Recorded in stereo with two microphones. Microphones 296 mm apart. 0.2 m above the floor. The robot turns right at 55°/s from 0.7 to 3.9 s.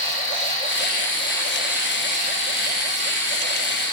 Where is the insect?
130° left, 0.8 m; by 3.9 s 55° right, 0.8 m.